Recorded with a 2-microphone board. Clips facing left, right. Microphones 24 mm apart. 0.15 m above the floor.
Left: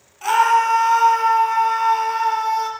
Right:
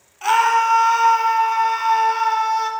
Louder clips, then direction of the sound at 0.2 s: Even; 15° right (ahead or behind).